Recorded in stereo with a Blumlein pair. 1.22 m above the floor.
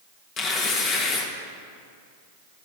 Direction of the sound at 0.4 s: 30° left.